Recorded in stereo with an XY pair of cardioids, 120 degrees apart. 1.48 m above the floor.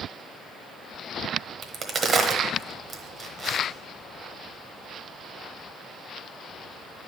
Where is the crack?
40° right, 1.1 m.